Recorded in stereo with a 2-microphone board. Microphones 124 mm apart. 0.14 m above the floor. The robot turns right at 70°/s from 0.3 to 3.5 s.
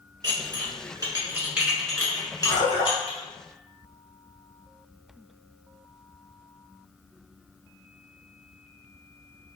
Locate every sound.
0.2 s dishes clattering: 35° right (ahead or behind), 1.0 m; by 3.2 s 40° left (ahead or behind), 1.0 m
2.5 s a splash: 30° left, 1.3 m; by 3.0 s 65° left, 1.3 m